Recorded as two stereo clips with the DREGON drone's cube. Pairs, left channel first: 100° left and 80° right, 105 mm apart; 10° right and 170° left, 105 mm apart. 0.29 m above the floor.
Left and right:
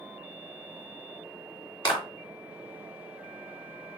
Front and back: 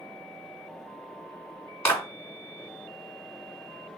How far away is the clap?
About 3 m.